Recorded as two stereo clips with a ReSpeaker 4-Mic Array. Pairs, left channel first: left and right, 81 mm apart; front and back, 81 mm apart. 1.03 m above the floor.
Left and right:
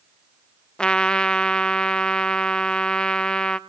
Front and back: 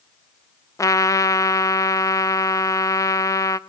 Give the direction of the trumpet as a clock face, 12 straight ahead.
11 o'clock.